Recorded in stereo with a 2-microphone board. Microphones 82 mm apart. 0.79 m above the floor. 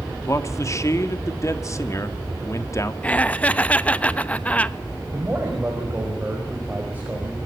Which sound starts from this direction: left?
A man speaking, at 0.3 s.